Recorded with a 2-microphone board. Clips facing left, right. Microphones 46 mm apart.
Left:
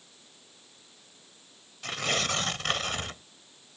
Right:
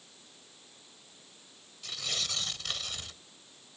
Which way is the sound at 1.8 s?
55° left (ahead or behind).